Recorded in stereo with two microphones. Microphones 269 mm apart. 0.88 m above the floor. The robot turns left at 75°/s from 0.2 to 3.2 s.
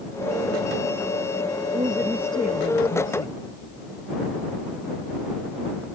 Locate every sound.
1.7 s a woman speaking: 150° right; by 3.4 s 100° left